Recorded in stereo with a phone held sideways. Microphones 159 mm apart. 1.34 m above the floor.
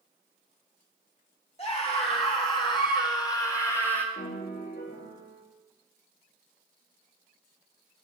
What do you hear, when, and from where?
1.6 s a scream: 40° left (ahead or behind), 3 m; by 4.0 s 10° left (ahead or behind), 1.9 m
4.2 s a piano: 80° left, 2.5 m